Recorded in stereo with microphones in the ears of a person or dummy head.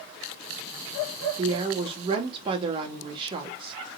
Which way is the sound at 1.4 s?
35° right (ahead or behind).